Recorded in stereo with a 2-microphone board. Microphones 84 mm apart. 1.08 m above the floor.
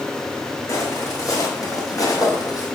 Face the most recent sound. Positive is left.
turn(degrees=45)  # may be behind; listen again after turning